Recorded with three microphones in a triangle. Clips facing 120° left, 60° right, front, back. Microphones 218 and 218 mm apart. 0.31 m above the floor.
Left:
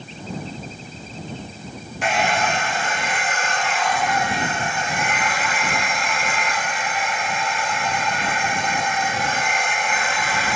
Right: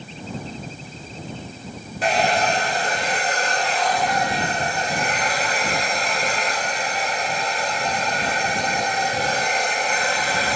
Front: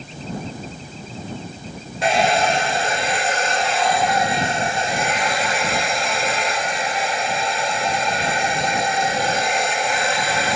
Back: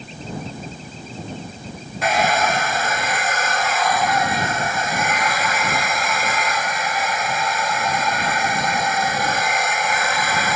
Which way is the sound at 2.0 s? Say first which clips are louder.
Right 2 dB, front 2 dB; 40° right.